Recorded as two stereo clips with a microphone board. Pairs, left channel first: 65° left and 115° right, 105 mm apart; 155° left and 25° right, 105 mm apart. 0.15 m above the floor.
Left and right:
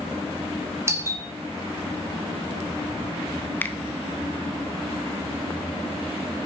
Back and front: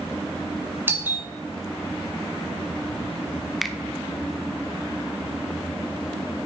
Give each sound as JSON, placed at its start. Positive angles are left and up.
{"t": 0.9, "sound": "a doorbell", "azimuth_deg": -75, "distance_m": 1.7}
{"t": 3.6, "sound": "a finger snap", "azimuth_deg": 70, "distance_m": 0.8}